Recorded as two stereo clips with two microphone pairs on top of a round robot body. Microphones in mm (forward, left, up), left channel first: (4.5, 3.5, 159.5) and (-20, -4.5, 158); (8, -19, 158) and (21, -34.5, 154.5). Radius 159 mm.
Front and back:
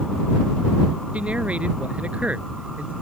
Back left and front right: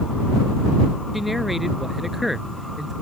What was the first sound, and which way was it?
A man speaking, 130° right.